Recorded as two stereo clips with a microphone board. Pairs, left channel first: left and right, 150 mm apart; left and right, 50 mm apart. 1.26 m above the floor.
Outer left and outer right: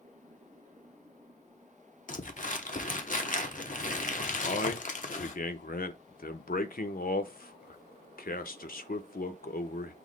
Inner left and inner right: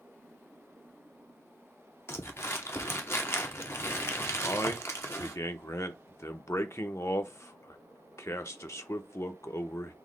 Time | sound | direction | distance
2.1 | crumpling | 60° left (ahead or behind) | 0.7 m
4.4 | a man speaking | 75° left (ahead or behind) | 0.7 m